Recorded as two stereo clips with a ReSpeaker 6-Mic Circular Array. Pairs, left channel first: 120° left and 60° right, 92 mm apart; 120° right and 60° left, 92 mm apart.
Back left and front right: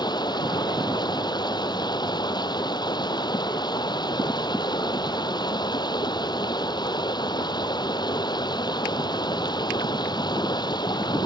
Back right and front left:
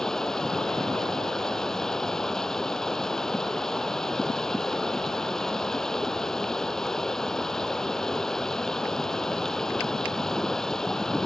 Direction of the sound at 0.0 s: 155° left.